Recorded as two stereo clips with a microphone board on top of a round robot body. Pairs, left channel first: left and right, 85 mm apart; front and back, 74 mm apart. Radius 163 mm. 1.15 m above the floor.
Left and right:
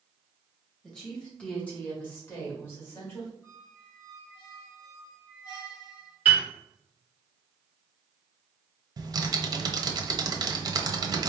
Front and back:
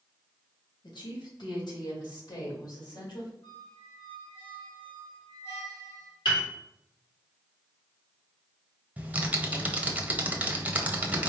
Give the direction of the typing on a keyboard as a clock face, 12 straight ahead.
4 o'clock.